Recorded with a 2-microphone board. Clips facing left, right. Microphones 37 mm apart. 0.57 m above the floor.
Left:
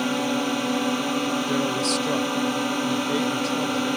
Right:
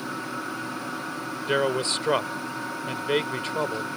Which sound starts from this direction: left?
A drone, at 0.0 s.